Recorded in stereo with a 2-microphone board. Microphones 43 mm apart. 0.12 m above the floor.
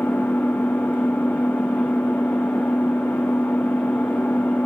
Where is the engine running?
55° left (ahead or behind), 5 m.